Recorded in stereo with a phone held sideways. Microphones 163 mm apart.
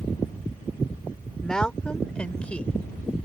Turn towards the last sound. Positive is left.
turn(degrees=5)  # may be behind; listen again after turning